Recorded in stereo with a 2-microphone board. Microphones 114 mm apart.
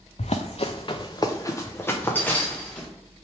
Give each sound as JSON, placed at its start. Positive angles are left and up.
{"t": 0.2, "sound": "running footsteps", "side_deg": 80, "distance_m": 0.6}